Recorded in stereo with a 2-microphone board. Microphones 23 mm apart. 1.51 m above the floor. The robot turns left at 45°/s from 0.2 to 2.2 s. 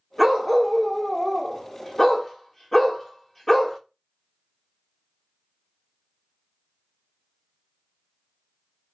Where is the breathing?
I don't hear breathing.